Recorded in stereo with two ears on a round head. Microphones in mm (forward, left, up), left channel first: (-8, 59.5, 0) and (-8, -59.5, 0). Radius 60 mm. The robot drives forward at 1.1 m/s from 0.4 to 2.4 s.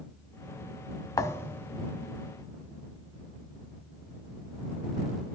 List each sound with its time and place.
1.2 s a thud: 25° left (ahead or behind), 0.6 m; by 1.7 s 15° left (ahead or behind), 1.2 m